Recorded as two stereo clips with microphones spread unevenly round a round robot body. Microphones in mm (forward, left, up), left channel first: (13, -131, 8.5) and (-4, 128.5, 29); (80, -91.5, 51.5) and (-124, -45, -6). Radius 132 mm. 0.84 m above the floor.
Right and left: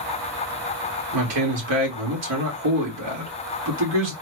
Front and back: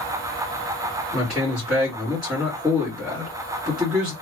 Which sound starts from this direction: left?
A man speaking, at 1.1 s.